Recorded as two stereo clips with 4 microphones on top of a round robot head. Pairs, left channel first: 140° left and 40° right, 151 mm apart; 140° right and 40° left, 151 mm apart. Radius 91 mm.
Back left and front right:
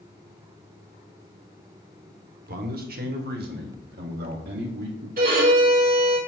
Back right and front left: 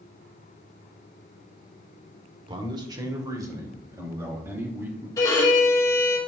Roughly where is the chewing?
I don't hear chewing.